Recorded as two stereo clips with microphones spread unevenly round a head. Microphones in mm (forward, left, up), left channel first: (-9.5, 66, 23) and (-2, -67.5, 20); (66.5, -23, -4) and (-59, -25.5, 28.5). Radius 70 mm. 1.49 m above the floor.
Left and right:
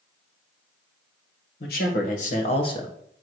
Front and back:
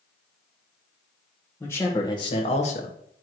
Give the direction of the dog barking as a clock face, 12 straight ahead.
I don't hear a dog barking.